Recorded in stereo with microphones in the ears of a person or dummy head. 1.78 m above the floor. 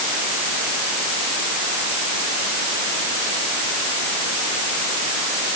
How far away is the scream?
No scream in this recording.